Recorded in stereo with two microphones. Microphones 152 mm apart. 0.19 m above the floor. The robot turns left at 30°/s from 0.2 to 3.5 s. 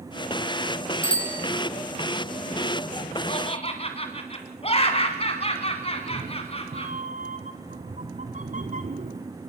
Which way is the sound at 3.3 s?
40° left (ahead or behind).